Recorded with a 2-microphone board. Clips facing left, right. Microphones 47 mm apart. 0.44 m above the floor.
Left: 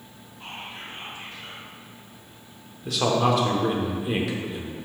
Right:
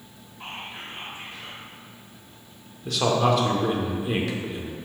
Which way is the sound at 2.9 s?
5° left (ahead or behind).